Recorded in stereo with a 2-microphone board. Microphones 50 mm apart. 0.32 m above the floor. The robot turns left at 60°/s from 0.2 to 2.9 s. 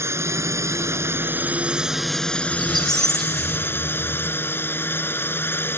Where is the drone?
70° right; by 5.8 s 130° left.